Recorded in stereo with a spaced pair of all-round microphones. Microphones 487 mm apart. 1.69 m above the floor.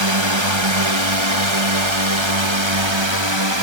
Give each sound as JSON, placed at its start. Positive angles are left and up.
{"t": 0.0, "sound": "a drone", "side_deg": -70}